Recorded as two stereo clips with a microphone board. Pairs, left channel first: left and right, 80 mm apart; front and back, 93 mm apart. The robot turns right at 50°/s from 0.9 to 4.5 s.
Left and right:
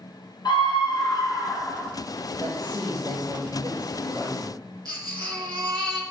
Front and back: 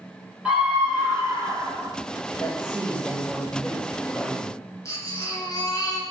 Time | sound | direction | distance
0.5 | a scream | 100° left | 3 m
2.4 | a man speaking | 150° right | 3.5 m
4.8 | a baby crying | 55° right | 3 m